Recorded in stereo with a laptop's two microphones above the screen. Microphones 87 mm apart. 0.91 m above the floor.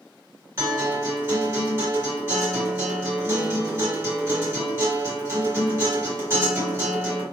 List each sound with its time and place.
0.6 s a guitar: 30° right (ahead or behind), 1.5 m